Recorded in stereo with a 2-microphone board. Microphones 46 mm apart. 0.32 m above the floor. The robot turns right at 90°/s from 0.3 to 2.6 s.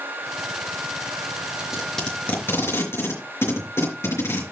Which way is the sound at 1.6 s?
25° right (ahead or behind).